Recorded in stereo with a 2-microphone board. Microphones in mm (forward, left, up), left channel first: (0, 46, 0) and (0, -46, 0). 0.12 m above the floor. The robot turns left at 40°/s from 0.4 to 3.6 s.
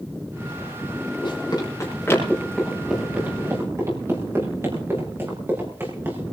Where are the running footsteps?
60° left (ahead or behind), 10 m; by 6.3 s 25° right (ahead or behind), 7.5 m.